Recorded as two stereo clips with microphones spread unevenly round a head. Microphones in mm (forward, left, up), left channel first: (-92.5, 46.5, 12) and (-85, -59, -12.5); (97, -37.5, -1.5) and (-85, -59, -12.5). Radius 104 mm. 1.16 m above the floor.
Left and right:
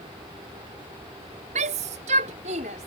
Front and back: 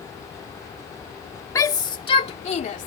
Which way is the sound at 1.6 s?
65° right.